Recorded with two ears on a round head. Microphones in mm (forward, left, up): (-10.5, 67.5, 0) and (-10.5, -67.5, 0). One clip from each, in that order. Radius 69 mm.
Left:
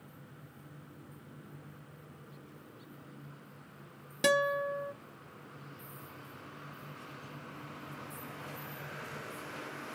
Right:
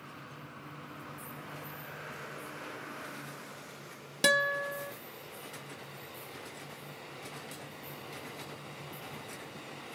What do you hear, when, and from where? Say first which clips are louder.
4.2 s a guitar: right 1 dB; 20° right (ahead or behind), 0.5 m